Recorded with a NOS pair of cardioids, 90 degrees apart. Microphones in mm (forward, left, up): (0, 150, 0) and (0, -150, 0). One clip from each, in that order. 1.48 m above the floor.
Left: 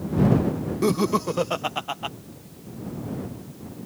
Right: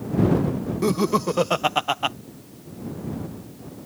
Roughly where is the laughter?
Ahead.